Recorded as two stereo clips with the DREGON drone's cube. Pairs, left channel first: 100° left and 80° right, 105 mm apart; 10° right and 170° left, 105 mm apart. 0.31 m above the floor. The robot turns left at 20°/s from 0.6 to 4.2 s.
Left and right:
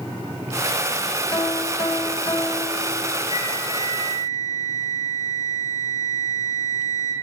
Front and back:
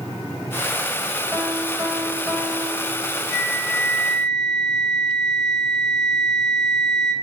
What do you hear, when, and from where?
1.3 s a piano: 115° left, 1.9 m; by 3.2 s 80° left, 1.9 m
3.3 s a flute: 70° left, 7 m; by 7.1 s 50° left, 7 m